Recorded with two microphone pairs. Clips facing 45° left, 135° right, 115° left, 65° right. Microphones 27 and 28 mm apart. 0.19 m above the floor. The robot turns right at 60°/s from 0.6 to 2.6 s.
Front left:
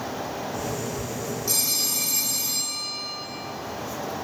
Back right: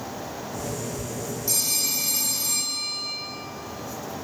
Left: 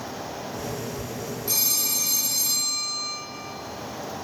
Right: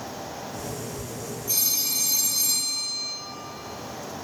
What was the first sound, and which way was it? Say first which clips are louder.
A phone ringing: even, even; 120° left.